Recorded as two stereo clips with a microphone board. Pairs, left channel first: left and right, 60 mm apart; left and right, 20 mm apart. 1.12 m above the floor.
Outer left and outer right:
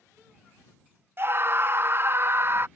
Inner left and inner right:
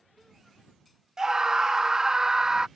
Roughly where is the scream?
Right.